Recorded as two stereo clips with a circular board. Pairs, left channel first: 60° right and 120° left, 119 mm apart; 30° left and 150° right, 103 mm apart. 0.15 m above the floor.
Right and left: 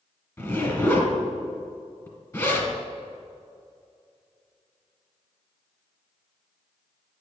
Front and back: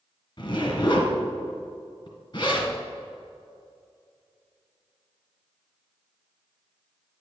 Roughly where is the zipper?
Ahead.